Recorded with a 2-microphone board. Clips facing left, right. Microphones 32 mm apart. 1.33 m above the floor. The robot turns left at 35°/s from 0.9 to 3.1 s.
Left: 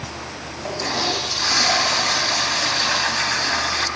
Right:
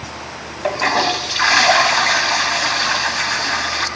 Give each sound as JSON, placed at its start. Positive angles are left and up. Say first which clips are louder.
{"t": 0.6, "sound": "a toilet flushing", "louder": "right 7 dB", "azimuth_deg": -90, "distance_m": 1.9}